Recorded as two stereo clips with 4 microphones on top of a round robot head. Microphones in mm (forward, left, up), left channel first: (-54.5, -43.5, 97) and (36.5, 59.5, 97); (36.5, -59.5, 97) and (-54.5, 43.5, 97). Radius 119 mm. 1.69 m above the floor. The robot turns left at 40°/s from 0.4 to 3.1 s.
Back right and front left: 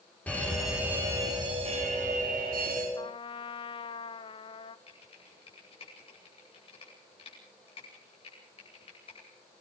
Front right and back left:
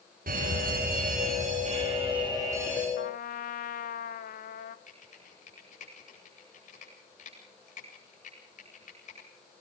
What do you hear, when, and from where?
0.3 s a fire alarm: 145° left, 9 m; by 2.9 s 50° left, 9 m
3.0 s a trumpet: 70° right, 0.9 m; by 4.8 s 75° right, 0.9 m
4.9 s typing on a keyboard: 80° right, 9 m